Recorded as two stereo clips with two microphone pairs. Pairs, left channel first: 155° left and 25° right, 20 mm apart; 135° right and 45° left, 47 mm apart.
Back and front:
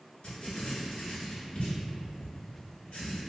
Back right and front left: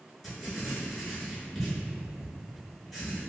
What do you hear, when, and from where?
0.2 s writing: 140° left, 1.2 m